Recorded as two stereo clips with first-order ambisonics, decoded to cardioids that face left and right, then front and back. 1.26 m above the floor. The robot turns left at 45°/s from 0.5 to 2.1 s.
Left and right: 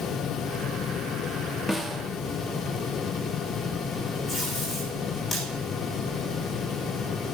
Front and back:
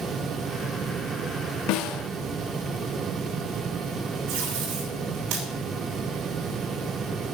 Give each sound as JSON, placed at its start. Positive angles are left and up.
{"t": 1.7, "sound": "a snare drum", "azimuth_deg": 0, "distance_m": 0.9}
{"t": 4.3, "sound": "tape being pulled", "azimuth_deg": 165, "distance_m": 7.5}